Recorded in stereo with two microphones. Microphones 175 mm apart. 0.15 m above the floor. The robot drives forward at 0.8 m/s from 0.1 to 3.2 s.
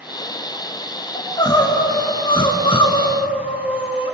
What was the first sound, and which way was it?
Crying, 20° left (ahead or behind).